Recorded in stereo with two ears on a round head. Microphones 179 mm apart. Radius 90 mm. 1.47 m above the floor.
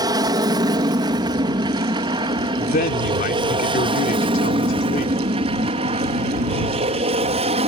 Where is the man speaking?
45° left (ahead or behind).